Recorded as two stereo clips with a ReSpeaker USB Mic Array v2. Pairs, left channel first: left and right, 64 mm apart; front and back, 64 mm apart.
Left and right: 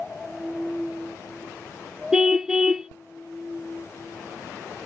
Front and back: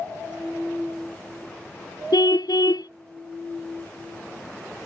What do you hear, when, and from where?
2.1 s a car horn: 10° right